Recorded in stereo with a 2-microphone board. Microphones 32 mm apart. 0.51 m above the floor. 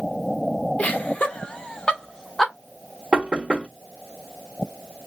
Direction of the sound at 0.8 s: 45° left (ahead or behind).